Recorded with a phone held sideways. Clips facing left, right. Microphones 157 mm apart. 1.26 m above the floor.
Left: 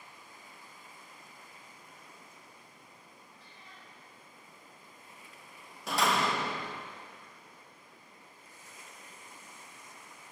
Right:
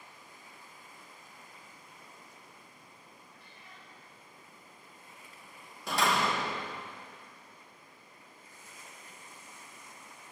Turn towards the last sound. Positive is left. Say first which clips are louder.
# even
turn(degrees=0)  # may be behind; listen again after turning